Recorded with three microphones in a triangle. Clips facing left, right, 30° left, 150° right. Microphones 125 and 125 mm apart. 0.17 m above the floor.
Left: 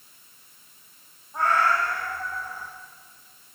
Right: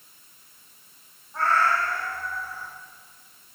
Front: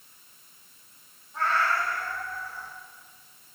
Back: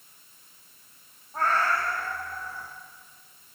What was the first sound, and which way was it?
A cat meowing, 165° left.